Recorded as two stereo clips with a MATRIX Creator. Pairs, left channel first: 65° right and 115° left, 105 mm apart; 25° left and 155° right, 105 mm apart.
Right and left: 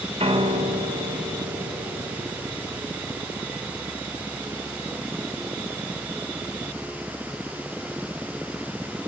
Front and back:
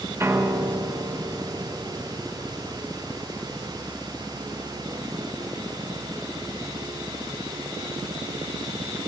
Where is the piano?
135° left, 1.1 m.